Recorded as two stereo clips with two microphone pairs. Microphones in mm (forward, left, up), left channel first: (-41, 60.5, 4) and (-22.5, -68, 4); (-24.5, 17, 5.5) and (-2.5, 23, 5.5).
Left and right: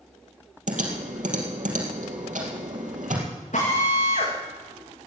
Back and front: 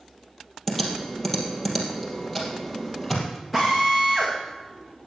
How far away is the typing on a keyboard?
About 3 m.